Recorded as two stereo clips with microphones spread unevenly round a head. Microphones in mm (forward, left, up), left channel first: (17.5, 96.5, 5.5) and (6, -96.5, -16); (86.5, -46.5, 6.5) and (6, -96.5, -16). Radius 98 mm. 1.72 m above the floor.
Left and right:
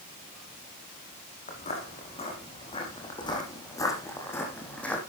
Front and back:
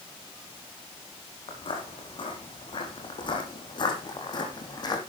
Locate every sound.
1.5 s footsteps: 40° left, 4.5 m; by 5.0 s 5° left, 4 m